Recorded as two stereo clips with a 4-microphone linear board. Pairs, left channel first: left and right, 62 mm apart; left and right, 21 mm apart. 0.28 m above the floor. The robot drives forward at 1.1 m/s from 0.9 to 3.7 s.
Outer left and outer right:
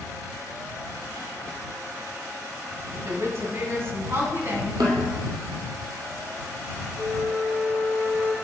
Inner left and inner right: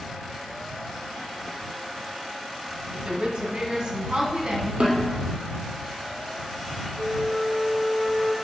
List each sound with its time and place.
2.9 s a woman speaking: 50° right (ahead or behind), 1.7 m; by 4.7 s 40° right (ahead or behind), 2 m
4.8 s a snare drum: 80° right, 2.5 m
7.0 s a flute: 65° right (ahead or behind), 2 m